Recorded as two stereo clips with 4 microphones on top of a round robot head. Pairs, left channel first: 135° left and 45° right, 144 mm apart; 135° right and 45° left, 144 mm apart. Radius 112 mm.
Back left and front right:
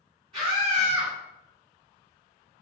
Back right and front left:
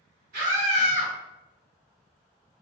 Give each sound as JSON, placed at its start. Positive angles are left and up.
{"t": 0.3, "sound": "a scream", "azimuth_deg": 15, "distance_m": 1.2}